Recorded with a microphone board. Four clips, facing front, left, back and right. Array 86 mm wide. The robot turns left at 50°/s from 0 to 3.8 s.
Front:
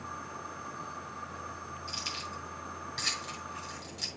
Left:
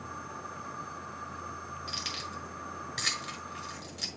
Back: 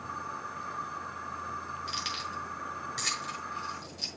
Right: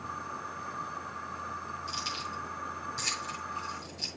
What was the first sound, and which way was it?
Keys jangling, 155° left.